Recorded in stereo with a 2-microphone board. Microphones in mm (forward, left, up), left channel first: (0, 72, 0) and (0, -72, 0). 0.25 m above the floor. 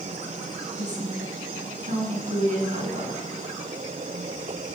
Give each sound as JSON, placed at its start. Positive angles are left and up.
{"t": 0.8, "sound": "a woman speaking", "side_deg": -60, "distance_m": 2.5}